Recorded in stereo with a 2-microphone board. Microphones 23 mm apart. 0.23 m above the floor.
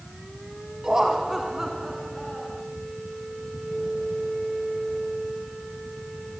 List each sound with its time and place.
0.8 s laughter: 30° right (ahead or behind), 1.4 m; by 2.6 s centre (ahead or behind), 3 m